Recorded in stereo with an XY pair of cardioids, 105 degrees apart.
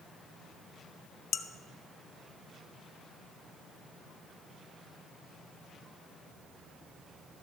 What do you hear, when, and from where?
1.3 s dishes clattering: 60° left, 0.8 m